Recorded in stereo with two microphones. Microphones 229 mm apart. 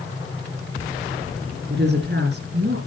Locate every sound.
1.7 s a woman speaking: 50° right (ahead or behind), 2.5 m